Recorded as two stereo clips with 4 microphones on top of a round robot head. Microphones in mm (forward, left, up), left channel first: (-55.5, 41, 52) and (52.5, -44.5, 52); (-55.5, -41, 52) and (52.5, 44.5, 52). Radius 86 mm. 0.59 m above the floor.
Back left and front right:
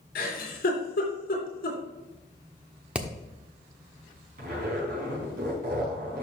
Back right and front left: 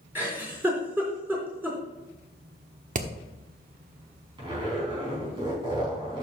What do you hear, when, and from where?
0.1 s a giggle: 115° left, 3.5 m
3.0 s hammering: 45° left, 1.2 m
4.4 s a zipper: 20° right, 4.5 m